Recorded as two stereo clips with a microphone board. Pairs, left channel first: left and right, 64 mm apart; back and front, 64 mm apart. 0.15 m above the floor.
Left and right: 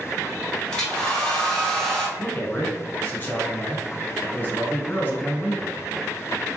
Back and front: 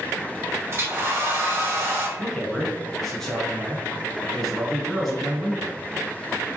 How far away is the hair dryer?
About 1.0 m.